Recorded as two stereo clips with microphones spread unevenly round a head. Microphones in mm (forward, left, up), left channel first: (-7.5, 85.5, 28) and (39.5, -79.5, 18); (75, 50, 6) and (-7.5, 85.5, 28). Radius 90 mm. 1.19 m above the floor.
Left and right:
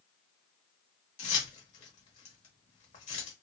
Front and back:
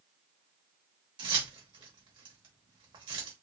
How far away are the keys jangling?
About 1.0 m.